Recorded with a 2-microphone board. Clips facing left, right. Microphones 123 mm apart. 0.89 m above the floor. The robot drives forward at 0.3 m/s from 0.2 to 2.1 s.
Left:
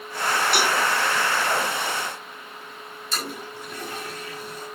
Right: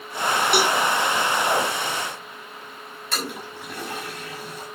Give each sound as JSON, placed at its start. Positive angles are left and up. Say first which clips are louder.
{"t": 0.5, "sound": "a cowbell", "louder": "right 4 dB", "side_deg": -55, "distance_m": 5.5}
{"t": 3.1, "sound": "a toilet flushing", "louder": "right 2 dB", "side_deg": -65, "distance_m": 6.5}